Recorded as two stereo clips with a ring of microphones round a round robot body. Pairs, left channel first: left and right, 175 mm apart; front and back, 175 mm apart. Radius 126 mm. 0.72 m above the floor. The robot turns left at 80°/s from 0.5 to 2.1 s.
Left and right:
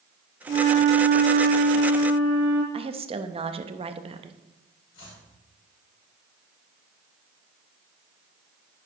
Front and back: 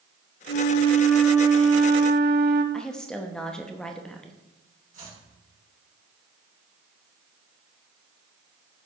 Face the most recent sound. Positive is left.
turn(degrees=135)